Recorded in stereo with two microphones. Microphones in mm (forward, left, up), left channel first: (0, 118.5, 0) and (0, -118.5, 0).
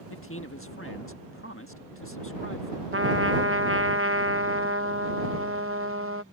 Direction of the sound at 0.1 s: 55° left (ahead or behind).